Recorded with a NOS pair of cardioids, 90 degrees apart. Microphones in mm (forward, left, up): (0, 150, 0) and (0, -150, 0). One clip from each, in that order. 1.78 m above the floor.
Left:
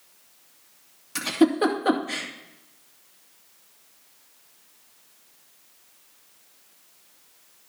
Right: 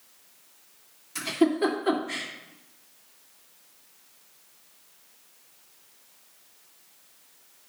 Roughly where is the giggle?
Ahead left.